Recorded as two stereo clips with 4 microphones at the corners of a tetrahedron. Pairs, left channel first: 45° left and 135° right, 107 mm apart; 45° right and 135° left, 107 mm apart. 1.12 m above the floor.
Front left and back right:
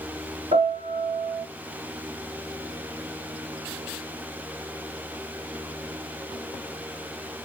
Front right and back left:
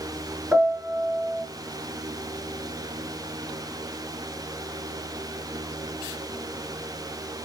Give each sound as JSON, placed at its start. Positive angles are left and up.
{"t": 0.5, "sound": "a piano", "azimuth_deg": -150, "distance_m": 3.5}